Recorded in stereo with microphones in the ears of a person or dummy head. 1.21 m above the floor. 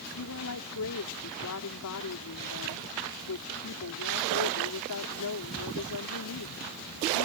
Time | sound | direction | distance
0.1 | a woman speaking | 85° left | ?